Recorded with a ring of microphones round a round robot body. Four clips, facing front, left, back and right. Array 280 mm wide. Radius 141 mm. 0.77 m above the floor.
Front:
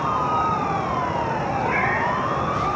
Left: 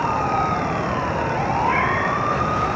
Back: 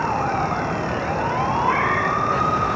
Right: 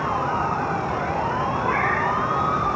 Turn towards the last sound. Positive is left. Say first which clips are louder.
# left 1 dB, back 2 dB
turn(degrees=-155)